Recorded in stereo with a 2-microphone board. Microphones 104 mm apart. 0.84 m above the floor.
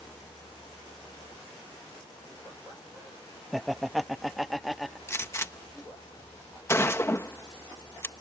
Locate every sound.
3.5 s laughter: centre (ahead or behind)
5.1 s a gunshot: 25° left (ahead or behind)